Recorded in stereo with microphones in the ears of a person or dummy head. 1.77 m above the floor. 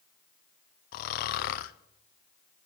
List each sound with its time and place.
0.9 s snoring: 55° left (ahead or behind), 0.6 m